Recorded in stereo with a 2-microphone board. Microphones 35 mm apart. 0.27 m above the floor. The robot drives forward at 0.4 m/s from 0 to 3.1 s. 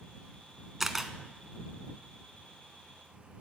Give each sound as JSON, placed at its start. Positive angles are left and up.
{"t": 0.8, "sound": "a camera shutter", "side_deg": -10, "distance_m": 1.0}